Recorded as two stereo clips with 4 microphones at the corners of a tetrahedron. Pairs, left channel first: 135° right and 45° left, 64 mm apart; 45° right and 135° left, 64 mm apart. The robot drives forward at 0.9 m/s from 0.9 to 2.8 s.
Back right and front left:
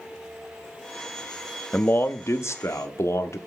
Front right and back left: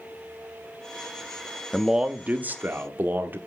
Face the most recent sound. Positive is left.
turn(degrees=-170)